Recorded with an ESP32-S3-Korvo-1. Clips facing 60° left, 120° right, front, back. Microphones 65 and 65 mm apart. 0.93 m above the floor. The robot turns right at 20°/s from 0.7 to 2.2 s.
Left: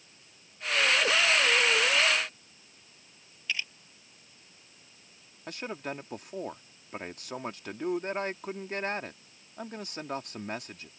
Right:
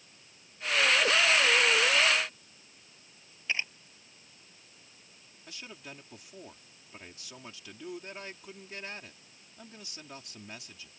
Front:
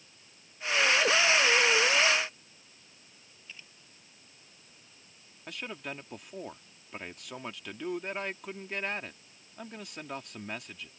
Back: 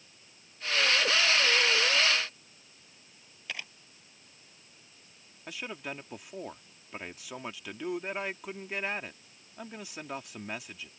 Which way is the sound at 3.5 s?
Straight behind.